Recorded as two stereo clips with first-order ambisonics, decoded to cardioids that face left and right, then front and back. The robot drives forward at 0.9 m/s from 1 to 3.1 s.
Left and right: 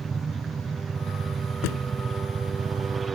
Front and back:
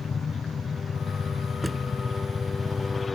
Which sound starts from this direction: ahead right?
A helicopter, at 0.0 s.